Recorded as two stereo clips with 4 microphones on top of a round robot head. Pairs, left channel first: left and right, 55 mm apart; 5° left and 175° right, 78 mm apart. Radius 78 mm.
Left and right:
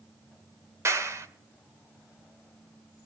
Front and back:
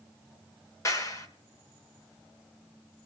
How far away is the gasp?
I don't hear a gasp.